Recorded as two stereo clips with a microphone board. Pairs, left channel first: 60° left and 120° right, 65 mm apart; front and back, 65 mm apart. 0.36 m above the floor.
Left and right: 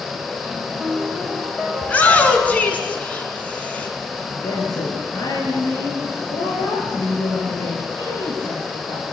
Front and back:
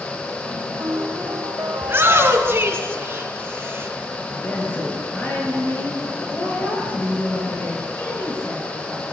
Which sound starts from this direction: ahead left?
A woman speaking, at 4.2 s.